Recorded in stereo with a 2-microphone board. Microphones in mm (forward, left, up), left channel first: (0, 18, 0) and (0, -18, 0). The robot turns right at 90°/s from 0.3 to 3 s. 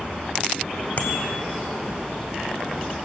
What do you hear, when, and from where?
1.0 s a bicycle bell: 130° left, 2.5 m; by 1.3 s 165° left, 2.5 m